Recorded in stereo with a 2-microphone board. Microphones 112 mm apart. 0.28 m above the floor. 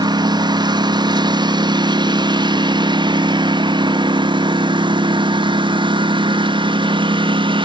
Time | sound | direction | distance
0.0 | a lawn mower | 40° right (ahead or behind) | ?